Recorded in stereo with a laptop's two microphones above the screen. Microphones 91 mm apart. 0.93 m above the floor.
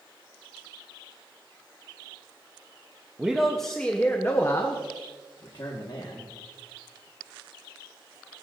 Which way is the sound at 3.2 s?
10° right (ahead or behind).